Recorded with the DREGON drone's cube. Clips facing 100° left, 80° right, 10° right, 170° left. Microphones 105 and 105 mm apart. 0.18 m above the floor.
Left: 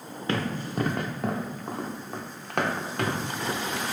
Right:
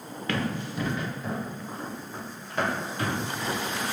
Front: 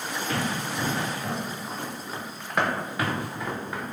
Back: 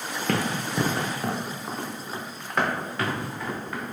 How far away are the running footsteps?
About 0.8 m.